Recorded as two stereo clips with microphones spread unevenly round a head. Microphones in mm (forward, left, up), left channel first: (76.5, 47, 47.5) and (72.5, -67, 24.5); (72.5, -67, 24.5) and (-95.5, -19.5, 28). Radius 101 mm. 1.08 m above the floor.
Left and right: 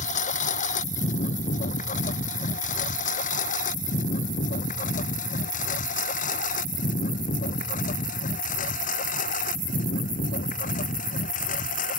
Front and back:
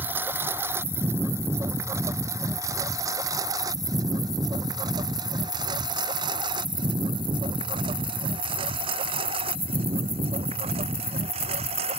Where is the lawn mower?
85° left; by 12.0 s 100° left.